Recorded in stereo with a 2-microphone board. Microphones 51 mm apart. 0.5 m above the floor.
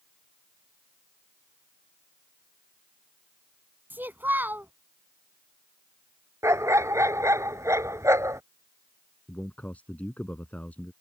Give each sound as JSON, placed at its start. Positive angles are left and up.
{"t": 3.9, "sound": "a child speaking", "side_deg": -40}
{"t": 6.4, "sound": "a dog barking", "side_deg": -85}
{"t": 9.3, "sound": "a man speaking", "side_deg": 30}